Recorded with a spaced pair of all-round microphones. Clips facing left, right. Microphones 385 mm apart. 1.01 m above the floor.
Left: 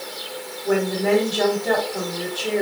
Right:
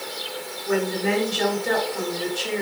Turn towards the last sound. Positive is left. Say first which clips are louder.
# left 3 dB
turn(degrees=70)  # may be behind; listen again after turning